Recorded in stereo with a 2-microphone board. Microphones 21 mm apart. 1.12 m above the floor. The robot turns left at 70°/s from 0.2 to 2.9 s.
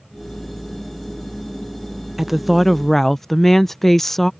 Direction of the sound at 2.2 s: 160° right.